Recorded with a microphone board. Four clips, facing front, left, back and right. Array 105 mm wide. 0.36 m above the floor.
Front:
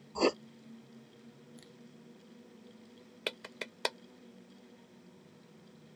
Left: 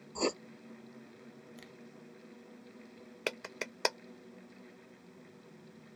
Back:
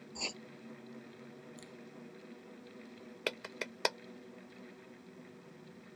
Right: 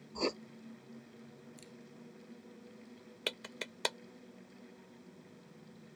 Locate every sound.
0.1 s writing: 10° left
1.6 s a finger snap: 95° left
3.3 s a clap: 110° left